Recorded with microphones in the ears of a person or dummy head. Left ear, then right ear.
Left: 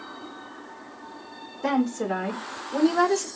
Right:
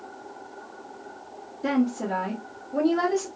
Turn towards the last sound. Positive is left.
turn(degrees=65)  # may be behind; listen again after turning